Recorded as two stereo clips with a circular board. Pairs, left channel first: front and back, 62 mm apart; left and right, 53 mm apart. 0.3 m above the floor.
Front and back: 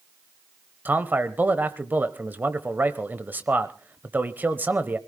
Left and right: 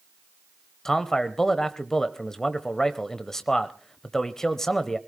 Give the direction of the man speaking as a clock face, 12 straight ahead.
7 o'clock.